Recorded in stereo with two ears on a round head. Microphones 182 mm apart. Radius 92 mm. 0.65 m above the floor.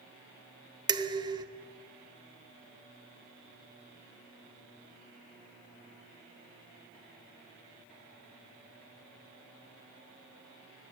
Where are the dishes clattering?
20° right (ahead or behind), 0.7 m.